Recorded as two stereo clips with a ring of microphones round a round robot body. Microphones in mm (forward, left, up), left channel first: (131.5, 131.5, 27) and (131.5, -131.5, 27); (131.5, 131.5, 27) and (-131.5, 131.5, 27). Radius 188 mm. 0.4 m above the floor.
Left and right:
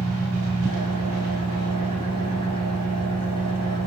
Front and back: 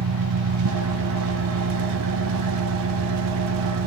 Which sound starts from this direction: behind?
An engine running, at 0.0 s.